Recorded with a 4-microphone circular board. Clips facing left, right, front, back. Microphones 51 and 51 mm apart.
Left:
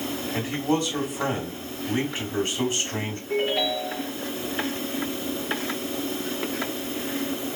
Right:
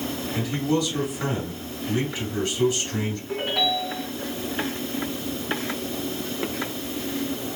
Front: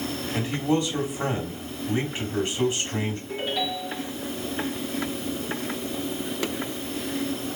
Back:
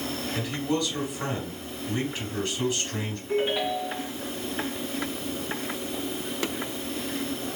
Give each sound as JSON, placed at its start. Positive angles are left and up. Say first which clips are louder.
{"t": 0.3, "sound": "a man speaking", "louder": "right 1 dB, front 4 dB", "azimuth_deg": 45, "distance_m": 1.7}
{"t": 3.3, "sound": "a ringtone", "louder": "left 2 dB, back 6 dB", "azimuth_deg": -110, "distance_m": 2.5}